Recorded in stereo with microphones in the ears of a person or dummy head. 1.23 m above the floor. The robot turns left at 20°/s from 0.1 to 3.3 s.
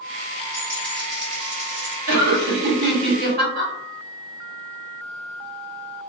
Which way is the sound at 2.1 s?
65° right (ahead or behind).